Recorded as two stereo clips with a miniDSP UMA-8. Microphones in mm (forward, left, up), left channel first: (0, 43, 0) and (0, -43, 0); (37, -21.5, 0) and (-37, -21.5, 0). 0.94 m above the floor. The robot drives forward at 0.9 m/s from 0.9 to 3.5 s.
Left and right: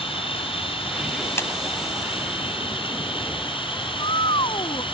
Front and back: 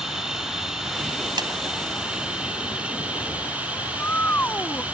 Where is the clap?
155° left.